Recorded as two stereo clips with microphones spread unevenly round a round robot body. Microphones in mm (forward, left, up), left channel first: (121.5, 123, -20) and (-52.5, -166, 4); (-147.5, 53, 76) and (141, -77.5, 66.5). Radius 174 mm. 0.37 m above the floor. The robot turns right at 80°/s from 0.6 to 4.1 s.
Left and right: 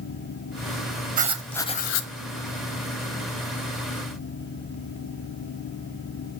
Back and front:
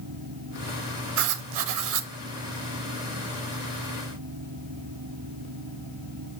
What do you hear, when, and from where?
1.2 s writing: 55° right, 1.0 m; by 2.1 s 20° left, 1.0 m